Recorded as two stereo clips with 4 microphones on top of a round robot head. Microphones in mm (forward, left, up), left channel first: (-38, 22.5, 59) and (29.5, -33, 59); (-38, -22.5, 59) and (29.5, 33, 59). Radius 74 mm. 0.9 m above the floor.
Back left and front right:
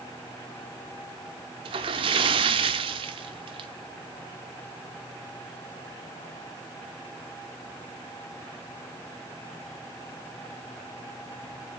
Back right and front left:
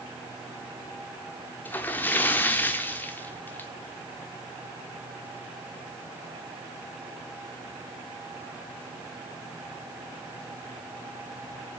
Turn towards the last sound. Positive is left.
turn(degrees=-70)